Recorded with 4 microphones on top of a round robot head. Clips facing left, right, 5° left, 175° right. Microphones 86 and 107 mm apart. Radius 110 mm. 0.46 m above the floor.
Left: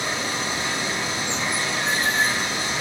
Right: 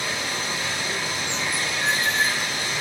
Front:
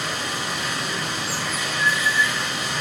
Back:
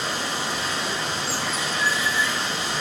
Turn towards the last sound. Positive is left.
turn(degrees=140)